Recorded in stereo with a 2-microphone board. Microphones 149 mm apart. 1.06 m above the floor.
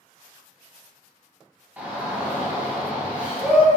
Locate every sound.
1.8 s a shout: 10° right (ahead or behind), 1.0 m